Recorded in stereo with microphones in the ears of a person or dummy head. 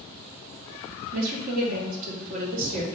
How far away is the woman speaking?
About 0.8 m.